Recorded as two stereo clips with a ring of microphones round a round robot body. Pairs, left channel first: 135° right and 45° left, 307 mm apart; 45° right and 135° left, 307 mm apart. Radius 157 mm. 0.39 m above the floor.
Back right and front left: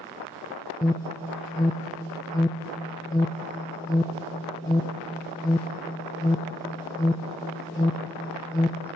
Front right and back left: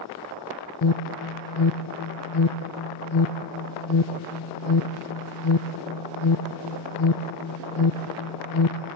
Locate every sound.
0.8 s an alarm: 60° right, 0.8 m